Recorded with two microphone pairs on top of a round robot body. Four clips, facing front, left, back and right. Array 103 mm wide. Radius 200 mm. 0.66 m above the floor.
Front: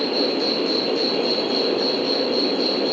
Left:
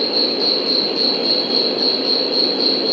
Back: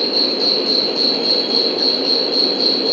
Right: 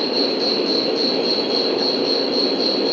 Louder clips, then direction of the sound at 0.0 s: Right 1 dB, even; 135° left.